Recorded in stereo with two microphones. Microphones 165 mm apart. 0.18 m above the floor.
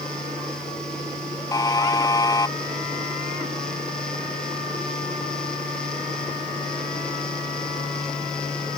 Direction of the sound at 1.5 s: 20° left (ahead or behind).